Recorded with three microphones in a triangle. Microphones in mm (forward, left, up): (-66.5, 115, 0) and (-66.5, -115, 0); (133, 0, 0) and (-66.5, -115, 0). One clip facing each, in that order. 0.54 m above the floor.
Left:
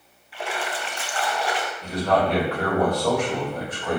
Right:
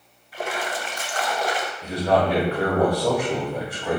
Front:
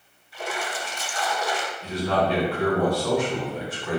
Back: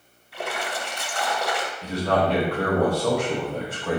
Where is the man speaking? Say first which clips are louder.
Right 1 dB, back 2 dB; 170° right, 2.0 m.